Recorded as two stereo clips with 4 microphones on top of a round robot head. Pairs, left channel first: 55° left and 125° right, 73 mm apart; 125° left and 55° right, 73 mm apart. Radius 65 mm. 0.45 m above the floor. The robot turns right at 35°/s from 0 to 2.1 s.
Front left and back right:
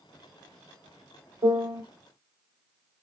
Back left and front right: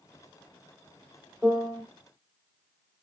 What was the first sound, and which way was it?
A piano, 125° right.